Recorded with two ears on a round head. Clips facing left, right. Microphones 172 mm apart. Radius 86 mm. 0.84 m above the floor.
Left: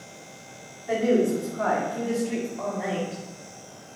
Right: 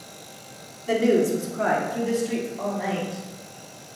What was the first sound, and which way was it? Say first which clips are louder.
A woman speaking: right 2 dB; 45° right (ahead or behind).